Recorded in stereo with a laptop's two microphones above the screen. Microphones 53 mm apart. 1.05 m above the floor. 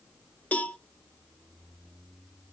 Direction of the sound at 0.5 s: 30° left (ahead or behind).